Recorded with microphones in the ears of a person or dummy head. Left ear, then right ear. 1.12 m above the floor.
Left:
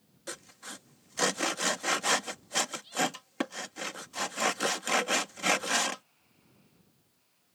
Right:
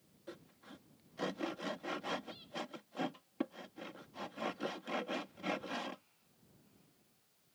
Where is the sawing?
65° left (ahead or behind).